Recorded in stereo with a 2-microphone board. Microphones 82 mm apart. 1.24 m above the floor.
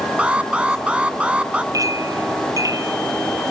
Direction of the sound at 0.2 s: 15° right (ahead or behind).